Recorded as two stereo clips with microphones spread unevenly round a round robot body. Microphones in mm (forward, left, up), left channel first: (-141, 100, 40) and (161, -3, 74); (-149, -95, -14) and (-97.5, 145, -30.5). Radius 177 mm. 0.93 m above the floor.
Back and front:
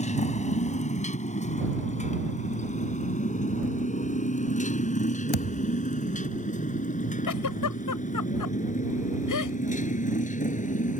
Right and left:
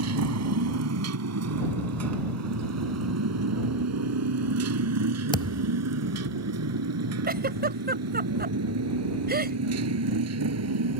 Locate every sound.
0.0 s a motorcycle: 90° left; by 11.0 s 95° left
5.3 s a thud: 175° right
7.3 s a giggle: 130° left